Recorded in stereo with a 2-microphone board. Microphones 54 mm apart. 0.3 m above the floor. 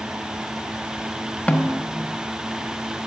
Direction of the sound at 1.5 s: 25° left (ahead or behind).